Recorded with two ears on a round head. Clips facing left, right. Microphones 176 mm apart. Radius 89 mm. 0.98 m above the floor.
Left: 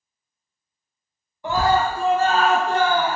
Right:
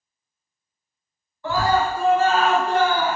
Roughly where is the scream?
Centre.